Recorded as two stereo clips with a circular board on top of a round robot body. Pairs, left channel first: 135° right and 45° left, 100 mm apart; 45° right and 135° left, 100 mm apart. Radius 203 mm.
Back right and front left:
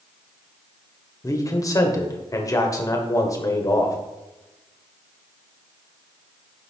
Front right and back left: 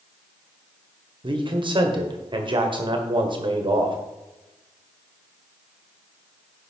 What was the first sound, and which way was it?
A man speaking, 170° left.